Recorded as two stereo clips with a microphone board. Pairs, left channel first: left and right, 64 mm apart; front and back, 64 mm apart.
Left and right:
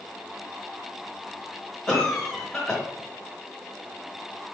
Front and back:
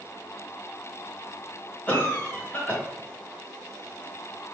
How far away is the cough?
About 1.0 m.